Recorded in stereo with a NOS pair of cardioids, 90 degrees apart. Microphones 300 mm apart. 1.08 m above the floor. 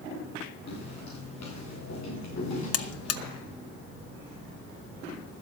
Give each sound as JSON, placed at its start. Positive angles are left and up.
{"t": 0.7, "sound": "footsteps", "azimuth_deg": 60, "distance_m": 6.5}
{"t": 2.7, "sound": "a buzzer", "azimuth_deg": 50, "distance_m": 0.9}